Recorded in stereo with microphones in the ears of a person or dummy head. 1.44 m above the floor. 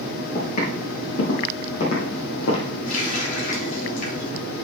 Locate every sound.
0.3 s footsteps: 35° left (ahead or behind), 5.5 m; by 2.7 s 60° left (ahead or behind), 3.5 m
2.9 s a running tap: 40° left (ahead or behind), 4 m